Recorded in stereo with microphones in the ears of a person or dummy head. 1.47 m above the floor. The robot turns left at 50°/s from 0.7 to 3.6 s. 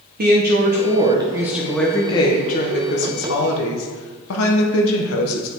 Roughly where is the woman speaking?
Behind right.